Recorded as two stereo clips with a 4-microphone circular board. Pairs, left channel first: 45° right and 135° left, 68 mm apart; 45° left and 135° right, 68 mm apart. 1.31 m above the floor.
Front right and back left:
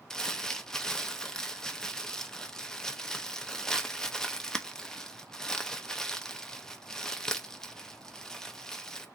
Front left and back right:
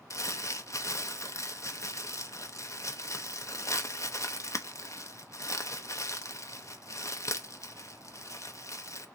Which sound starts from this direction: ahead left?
Crumpling, at 0.1 s.